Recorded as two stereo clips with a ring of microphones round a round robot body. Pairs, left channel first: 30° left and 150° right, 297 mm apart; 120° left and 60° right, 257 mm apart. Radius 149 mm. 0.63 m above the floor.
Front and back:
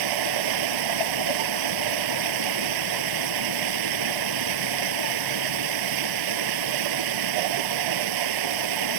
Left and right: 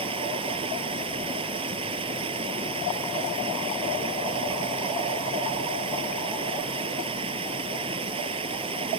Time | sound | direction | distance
0.0 | running water | 135° right | ?